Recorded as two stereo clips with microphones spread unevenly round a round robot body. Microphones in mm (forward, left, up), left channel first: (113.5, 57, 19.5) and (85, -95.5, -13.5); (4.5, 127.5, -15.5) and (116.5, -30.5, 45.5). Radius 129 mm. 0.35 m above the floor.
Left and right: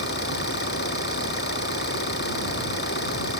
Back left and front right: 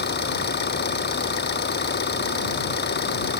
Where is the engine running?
95° left.